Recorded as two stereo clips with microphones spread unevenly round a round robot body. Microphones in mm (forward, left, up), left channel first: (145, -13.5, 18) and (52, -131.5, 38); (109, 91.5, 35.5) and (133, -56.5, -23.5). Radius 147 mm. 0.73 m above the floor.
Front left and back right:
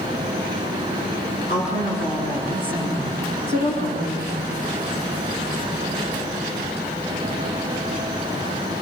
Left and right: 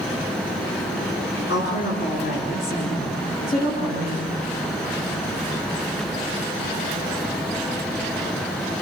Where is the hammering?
I don't hear hammering.